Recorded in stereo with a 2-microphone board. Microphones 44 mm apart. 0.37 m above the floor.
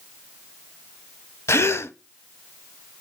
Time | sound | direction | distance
1.5 | a gasp | 80° left | 0.5 m